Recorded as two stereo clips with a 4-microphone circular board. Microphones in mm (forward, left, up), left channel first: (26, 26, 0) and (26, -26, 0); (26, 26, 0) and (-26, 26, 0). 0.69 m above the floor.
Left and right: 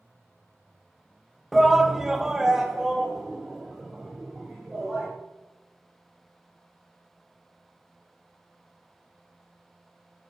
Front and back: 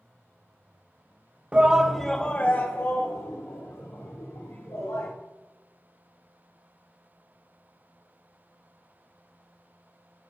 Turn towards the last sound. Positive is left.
turn(degrees=-5)